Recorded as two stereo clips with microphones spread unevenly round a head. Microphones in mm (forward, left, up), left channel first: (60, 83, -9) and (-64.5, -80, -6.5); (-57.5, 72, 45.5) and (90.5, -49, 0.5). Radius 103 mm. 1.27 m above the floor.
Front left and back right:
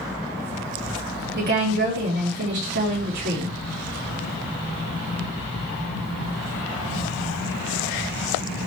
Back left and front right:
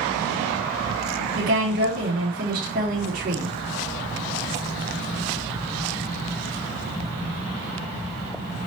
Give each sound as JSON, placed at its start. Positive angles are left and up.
{"t": 1.4, "sound": "a woman speaking", "azimuth_deg": -85, "distance_m": 4.0}